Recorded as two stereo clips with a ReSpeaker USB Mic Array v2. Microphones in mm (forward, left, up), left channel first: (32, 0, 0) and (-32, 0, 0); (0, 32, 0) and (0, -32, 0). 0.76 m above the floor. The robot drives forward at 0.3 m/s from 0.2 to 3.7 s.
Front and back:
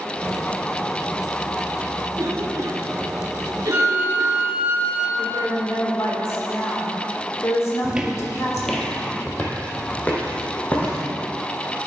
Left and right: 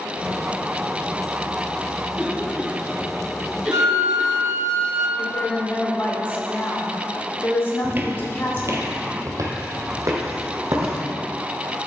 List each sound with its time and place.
2.1 s a cough: 155° right, 1.1 m; by 4.4 s 165° right, 1.5 m
3.7 s a flute: 115° right, 0.9 m
5.2 s a woman speaking: 40° left, 1.9 m
7.8 s footsteps: 125° right, 0.8 m; by 11.0 s 60° right, 2.5 m